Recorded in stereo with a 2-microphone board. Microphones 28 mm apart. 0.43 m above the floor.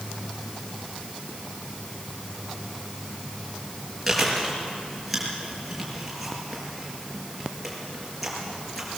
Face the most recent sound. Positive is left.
turn(degrees=0)  # may be behind; listen again after turning